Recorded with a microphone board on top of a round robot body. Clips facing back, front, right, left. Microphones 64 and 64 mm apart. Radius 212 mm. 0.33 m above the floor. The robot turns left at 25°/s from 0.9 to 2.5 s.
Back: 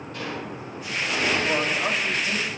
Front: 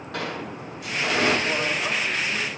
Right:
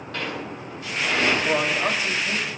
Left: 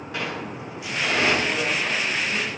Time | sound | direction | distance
0.1 | a sliding door | 15° left | 7 m
1.4 | a man speaking | 100° right | 3 m